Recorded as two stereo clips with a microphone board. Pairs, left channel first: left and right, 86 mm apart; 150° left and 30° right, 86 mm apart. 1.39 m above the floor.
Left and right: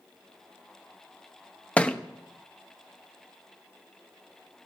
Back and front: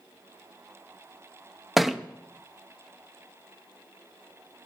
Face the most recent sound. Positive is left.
turn(degrees=50)